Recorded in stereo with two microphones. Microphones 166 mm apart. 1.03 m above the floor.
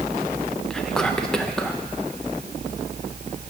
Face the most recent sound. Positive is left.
turn(degrees=5)  # may be behind; listen again after turning